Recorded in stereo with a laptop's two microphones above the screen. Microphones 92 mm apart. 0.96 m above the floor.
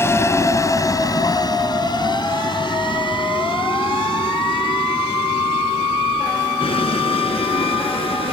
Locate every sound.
0.0 s a vehicle: 30° left (ahead or behind); by 8.3 s 90° left